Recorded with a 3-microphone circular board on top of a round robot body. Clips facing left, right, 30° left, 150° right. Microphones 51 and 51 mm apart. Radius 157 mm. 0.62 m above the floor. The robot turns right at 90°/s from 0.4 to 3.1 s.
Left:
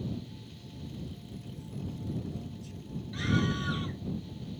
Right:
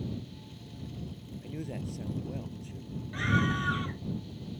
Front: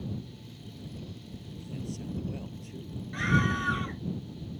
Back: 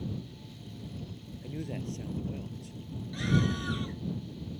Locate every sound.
1.4 s a man speaking: 135° right; by 3.0 s 5° left
3.1 s a scream: 25° right